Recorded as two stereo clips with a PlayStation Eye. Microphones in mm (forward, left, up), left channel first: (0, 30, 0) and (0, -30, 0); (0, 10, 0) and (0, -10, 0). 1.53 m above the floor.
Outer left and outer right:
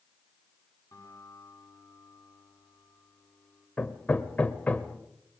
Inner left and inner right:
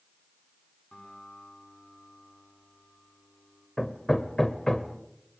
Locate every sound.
0.9 s a guitar: 60° left (ahead or behind), 9.5 m
3.8 s hammering: 25° left (ahead or behind), 1.4 m